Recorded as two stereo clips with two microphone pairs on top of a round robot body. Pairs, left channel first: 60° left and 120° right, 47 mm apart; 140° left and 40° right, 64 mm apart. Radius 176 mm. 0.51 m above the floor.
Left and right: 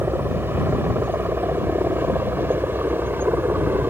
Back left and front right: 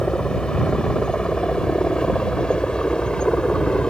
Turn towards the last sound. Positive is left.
turn(degrees=-145)